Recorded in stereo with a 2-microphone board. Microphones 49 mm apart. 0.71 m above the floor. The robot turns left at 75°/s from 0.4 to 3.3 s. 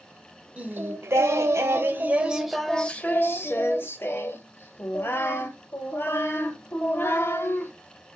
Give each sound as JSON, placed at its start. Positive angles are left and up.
{"t": 0.6, "sound": "singing", "azimuth_deg": -30, "distance_m": 0.8}